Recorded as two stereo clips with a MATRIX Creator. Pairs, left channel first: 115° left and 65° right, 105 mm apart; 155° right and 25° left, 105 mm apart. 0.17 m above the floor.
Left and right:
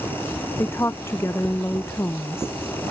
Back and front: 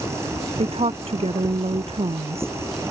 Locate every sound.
0.6 s a woman speaking: 45° left